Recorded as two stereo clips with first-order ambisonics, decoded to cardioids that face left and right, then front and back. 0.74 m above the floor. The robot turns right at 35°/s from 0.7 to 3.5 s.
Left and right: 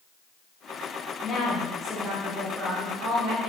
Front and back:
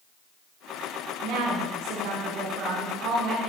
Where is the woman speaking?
160° left, 6.5 m; by 3.5 s 120° right, 6.5 m.